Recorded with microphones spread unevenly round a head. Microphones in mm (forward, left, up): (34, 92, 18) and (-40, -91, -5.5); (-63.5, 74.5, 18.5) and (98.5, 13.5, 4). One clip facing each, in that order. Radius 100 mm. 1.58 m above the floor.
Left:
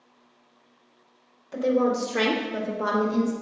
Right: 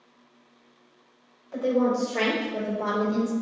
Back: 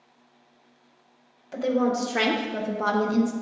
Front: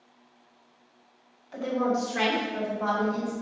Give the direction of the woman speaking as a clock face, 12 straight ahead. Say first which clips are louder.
Left 1 dB, back 3 dB; 8 o'clock.